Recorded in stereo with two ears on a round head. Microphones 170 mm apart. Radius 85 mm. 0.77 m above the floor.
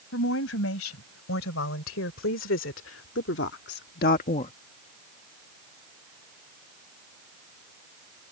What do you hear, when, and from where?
0.1 s a woman speaking: 85° left; by 4.5 s 30° left (ahead or behind)